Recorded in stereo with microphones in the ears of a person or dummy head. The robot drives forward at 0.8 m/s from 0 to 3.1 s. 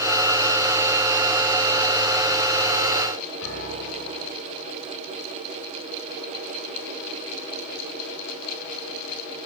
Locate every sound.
3.4 s a piano: 70° right (ahead or behind), 3.5 m